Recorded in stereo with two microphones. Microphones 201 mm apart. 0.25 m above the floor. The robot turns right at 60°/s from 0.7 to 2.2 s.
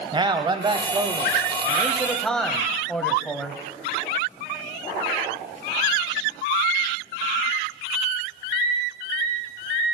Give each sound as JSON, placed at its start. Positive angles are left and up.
{"t": 0.1, "sound": "a man speaking", "side_deg": -25, "distance_m": 0.9}